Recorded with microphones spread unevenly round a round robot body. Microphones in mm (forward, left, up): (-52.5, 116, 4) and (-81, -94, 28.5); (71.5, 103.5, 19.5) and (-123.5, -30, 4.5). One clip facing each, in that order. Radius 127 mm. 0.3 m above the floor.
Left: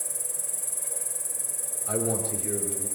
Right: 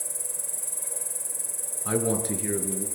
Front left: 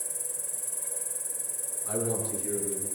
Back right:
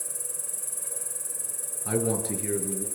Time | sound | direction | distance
0.0 | an insect | 150° left | 1.1 m
1.9 | a man speaking | 115° right | 5.5 m